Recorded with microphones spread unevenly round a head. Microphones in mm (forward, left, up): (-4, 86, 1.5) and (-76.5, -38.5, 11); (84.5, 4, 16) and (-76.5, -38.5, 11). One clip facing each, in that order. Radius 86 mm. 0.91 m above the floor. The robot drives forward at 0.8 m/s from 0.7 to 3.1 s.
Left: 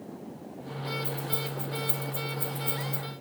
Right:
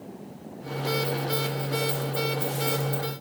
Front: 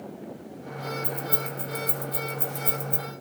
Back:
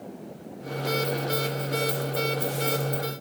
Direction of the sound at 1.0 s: 20° right.